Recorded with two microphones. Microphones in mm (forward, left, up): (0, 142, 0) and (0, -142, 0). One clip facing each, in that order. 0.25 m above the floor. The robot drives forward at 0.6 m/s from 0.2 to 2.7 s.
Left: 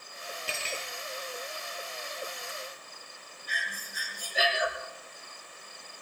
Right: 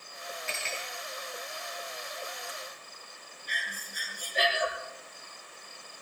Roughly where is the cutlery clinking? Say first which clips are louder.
Left 3 dB; left.